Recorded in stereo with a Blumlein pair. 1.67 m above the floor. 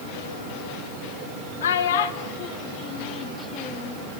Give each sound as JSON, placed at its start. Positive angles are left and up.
{"t": 1.6, "sound": "a child speaking", "azimuth_deg": 65, "distance_m": 1.7}